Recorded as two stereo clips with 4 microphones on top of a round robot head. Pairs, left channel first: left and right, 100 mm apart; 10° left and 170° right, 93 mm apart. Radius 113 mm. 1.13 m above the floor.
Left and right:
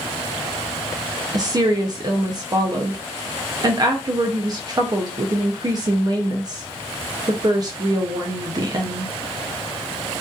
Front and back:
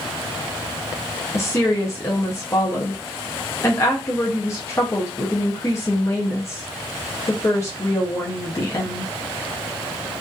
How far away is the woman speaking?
About 0.5 m.